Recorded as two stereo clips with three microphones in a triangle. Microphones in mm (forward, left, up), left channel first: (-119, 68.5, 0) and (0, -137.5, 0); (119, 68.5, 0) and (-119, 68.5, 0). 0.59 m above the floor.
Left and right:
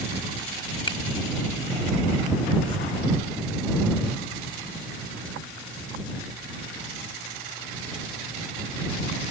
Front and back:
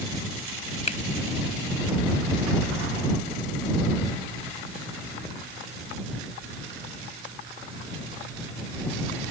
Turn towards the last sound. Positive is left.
turn(degrees=55)